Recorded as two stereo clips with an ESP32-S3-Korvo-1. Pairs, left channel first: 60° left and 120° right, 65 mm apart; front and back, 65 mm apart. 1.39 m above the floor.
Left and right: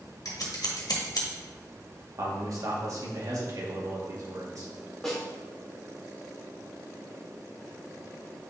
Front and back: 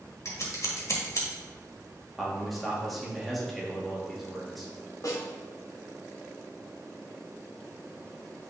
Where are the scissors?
40° left, 1.7 m.